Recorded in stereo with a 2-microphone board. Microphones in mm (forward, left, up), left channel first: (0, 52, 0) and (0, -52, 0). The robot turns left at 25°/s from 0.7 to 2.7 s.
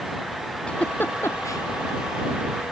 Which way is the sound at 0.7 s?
10° left (ahead or behind).